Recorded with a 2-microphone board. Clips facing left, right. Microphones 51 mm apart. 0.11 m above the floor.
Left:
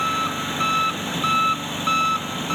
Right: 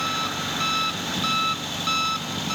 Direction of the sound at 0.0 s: 25° left (ahead or behind).